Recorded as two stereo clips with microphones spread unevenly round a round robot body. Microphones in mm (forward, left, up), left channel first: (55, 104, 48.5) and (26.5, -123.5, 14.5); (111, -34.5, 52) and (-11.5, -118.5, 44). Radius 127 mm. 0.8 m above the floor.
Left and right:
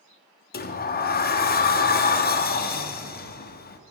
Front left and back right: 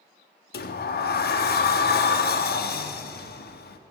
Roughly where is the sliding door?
Ahead left.